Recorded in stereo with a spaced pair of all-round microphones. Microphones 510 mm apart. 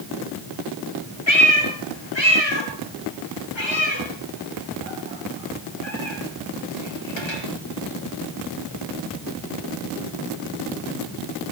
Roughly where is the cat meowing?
Left.